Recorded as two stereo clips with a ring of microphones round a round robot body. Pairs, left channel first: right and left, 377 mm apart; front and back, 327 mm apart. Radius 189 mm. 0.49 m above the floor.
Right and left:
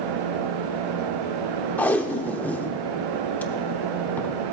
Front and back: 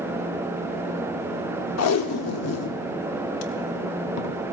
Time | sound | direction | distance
1.8 | tape being pulled | 5° right | 0.8 m